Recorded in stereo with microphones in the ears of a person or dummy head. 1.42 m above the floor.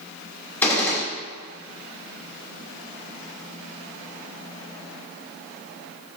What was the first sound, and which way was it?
A gunshot, 10° left (ahead or behind).